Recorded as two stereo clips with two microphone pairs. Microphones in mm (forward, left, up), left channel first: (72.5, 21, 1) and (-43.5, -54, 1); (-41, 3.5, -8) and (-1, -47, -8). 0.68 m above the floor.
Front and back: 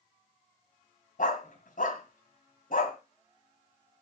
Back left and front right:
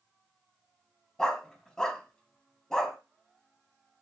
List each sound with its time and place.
1.2 s a dog barking: 50° left, 2.0 m